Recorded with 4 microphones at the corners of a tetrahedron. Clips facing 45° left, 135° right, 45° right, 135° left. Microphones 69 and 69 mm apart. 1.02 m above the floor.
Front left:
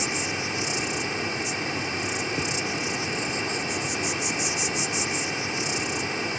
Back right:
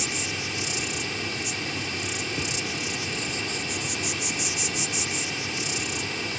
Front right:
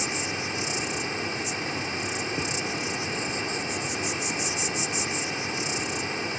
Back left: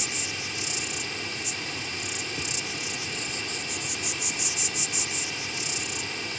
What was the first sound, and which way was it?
An insect, straight ahead.